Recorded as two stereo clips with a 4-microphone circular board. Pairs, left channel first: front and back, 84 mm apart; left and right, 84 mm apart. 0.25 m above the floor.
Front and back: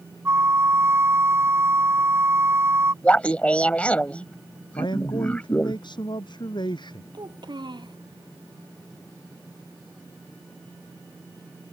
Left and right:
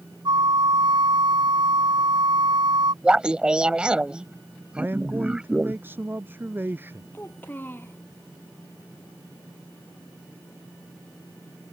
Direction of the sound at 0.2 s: 120° right.